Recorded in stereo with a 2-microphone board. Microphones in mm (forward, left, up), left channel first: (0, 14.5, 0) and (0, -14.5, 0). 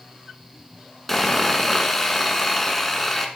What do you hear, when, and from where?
1.1 s sawing: 5° left (ahead or behind), 1.0 m